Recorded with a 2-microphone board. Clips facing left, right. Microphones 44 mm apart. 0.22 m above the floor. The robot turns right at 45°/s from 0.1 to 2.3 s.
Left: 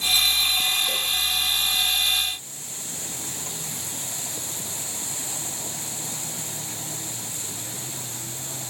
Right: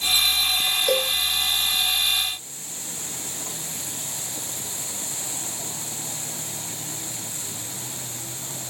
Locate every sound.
0.9 s a cowbell: 70° right (ahead or behind); by 1.2 s 55° right (ahead or behind)